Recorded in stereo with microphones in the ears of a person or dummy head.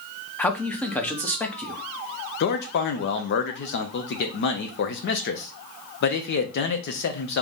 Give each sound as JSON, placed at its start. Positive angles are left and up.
{"t": 0.4, "sound": "a man speaking", "side_deg": 10, "distance_m": 0.8}
{"t": 2.4, "sound": "a man speaking", "side_deg": 60, "distance_m": 0.8}